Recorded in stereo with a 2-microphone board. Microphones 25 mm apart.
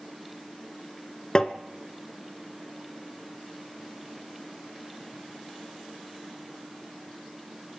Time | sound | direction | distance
1.4 | tapping | 30° left (ahead or behind) | 1.1 m